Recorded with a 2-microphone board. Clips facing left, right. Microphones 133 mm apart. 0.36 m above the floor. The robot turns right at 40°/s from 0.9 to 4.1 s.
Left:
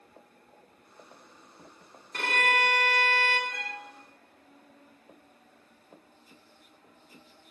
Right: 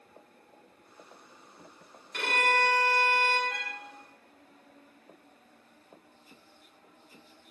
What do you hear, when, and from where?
2.1 s a violin: 40° left, 1.4 m; by 3.4 s 90° left, 1.4 m
3.5 s a violin: 70° right (ahead or behind), 0.7 m